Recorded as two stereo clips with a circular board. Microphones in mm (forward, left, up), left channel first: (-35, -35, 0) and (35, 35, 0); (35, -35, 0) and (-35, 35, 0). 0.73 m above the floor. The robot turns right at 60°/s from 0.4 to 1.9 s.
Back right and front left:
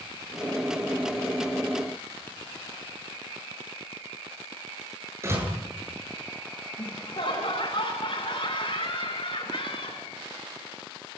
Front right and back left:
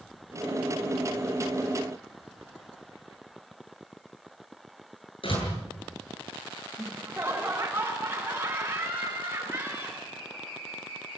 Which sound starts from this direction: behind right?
Laughter, at 6.8 s.